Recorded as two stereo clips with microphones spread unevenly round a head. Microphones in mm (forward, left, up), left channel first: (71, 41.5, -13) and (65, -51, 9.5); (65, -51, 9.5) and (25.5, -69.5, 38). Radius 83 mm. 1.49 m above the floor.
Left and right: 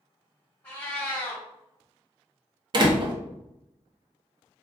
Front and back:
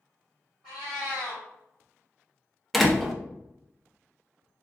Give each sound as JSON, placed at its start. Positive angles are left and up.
{"t": 0.6, "sound": "a cat meowing", "azimuth_deg": 165, "distance_m": 1.5}
{"t": 2.7, "sound": "a door slam", "azimuth_deg": -80, "distance_m": 0.5}